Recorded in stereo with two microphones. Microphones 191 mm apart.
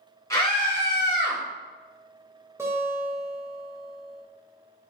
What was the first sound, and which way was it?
A scream, 15° left (ahead or behind).